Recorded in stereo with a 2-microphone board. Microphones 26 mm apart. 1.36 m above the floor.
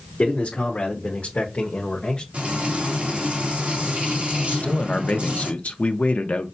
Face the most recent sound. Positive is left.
turn(degrees=75)  # may be behind; listen again after turning